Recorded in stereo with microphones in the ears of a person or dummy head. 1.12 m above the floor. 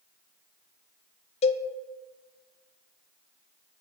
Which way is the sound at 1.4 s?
30° left (ahead or behind).